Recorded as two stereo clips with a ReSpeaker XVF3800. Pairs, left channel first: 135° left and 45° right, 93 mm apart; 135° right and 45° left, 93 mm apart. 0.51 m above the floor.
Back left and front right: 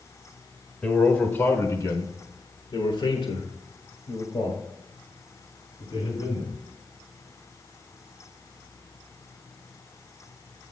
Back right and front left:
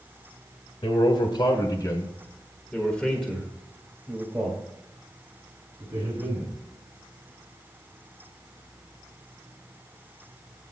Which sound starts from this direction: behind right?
A man speaking, at 0.8 s.